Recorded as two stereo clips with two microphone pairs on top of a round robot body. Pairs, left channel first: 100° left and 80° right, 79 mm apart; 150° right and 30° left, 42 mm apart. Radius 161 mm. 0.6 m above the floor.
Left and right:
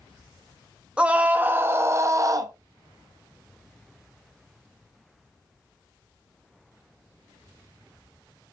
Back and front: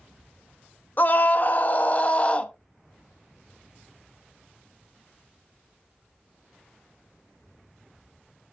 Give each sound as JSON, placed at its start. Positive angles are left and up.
{"t": 1.0, "sound": "a scream", "azimuth_deg": -155, "distance_m": 1.3}